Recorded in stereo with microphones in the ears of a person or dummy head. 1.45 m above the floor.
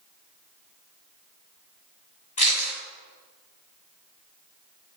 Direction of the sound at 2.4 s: 40° left (ahead or behind).